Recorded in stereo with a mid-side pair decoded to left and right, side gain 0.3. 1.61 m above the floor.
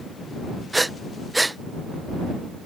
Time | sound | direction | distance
0.7 | breathing | 20° right | ?